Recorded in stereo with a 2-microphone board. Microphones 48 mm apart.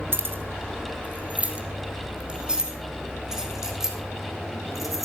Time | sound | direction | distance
0.1 | keys jangling | 50° right (ahead or behind) | 1.7 m